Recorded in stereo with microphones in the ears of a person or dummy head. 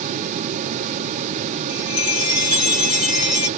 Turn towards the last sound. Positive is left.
turn(degrees=50)  # may be behind; listen again after turning